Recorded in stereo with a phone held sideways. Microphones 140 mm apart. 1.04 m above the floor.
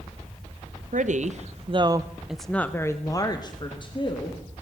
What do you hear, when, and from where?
0.9 s a woman speaking: 65° right (ahead or behind), 1.0 m; by 4.6 s 40° left (ahead or behind), 2 m